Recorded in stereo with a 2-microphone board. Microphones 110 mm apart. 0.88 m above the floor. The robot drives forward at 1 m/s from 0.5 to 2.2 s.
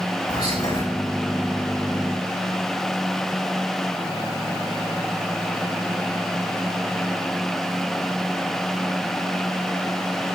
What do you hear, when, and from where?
0.3 s whispering: 65° left (ahead or behind), 3 m; by 0.8 s 70° left (ahead or behind), 3 m